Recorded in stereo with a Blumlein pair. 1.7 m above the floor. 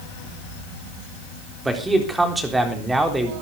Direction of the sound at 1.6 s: 5° right.